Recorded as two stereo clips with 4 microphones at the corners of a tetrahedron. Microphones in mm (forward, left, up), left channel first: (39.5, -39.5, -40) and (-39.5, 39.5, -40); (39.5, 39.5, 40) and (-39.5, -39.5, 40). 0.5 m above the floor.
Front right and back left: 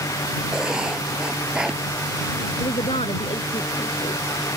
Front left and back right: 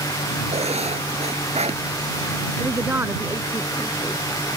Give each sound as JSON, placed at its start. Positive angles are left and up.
{"t": 0.5, "sound": "writing", "azimuth_deg": -140}
{"t": 2.6, "sound": "a woman speaking", "azimuth_deg": -65}